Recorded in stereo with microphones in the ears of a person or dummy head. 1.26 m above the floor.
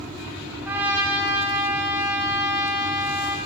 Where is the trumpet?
10° right (ahead or behind), 1.3 m.